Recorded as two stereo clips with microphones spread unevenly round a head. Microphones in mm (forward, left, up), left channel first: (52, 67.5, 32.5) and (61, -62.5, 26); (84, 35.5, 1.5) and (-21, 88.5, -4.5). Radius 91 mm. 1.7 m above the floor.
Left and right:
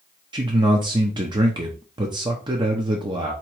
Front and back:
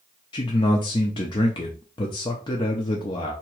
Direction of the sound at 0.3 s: 45° right.